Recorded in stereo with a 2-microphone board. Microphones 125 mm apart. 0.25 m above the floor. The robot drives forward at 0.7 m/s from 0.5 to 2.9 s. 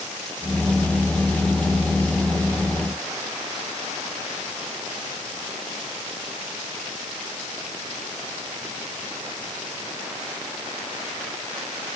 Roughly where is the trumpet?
I don't hear a trumpet.